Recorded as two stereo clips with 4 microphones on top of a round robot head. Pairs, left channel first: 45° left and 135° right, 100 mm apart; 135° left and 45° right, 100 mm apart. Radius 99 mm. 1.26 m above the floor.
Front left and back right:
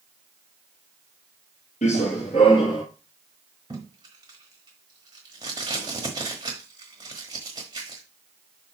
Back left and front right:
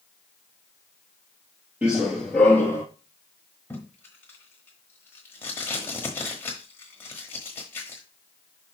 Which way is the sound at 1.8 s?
35° left.